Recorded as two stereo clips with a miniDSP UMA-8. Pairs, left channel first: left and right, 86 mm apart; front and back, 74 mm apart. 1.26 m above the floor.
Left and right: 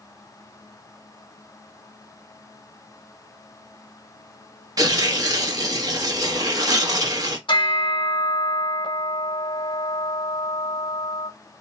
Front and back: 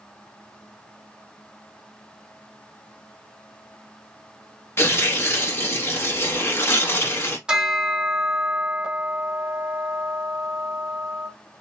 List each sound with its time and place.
4.8 s tearing paper: 55° right, 0.9 m
7.5 s a bell: 100° left, 1.0 m